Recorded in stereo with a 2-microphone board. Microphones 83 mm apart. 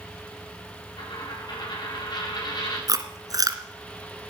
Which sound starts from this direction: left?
A dropped coin, at 1.0 s.